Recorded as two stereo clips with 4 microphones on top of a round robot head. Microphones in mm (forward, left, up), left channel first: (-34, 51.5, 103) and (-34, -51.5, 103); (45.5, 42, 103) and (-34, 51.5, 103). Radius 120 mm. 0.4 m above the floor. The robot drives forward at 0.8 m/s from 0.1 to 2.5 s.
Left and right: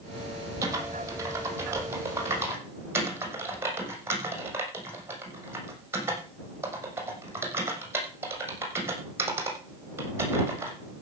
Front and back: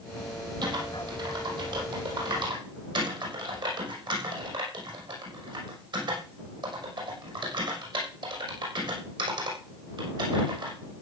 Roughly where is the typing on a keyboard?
Behind right.